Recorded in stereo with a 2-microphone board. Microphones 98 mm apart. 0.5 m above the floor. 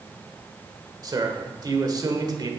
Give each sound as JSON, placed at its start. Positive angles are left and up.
{"t": 1.0, "sound": "a man speaking", "side_deg": -40, "distance_m": 1.5}